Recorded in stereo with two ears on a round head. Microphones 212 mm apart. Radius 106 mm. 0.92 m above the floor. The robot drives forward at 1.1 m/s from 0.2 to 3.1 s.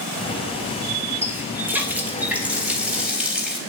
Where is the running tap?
10° right (ahead or behind), 2 m; by 3.6 s 5° right (ahead or behind), 4 m.